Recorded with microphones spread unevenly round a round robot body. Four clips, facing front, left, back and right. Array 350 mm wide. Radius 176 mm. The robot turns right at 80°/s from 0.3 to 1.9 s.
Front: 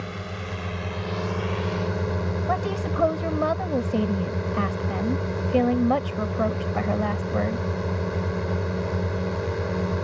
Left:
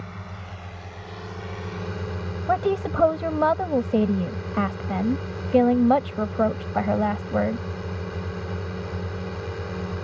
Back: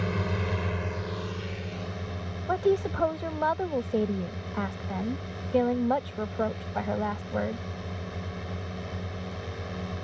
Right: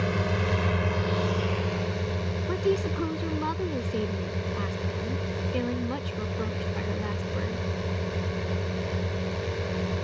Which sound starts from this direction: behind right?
A drone, at 0.0 s.